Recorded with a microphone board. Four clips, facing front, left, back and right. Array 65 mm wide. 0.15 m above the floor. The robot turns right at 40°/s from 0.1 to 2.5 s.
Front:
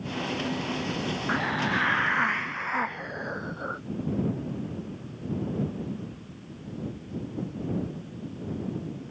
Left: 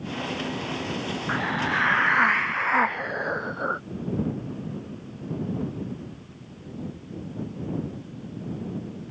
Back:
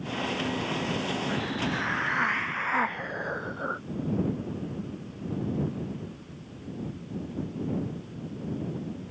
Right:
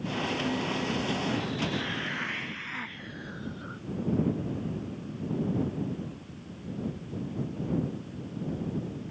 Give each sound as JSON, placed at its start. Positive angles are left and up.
{"t": 1.3, "sound": "a hiss", "azimuth_deg": 50}